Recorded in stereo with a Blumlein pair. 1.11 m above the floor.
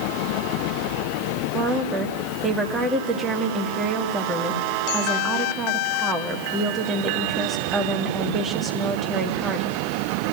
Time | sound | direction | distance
1.5 | a woman speaking | 15° right | 1.7 m